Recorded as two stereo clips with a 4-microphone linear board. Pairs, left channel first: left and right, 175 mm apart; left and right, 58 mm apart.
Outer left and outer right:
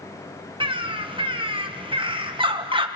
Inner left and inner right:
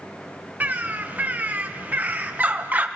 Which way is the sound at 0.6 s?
30° right (ahead or behind).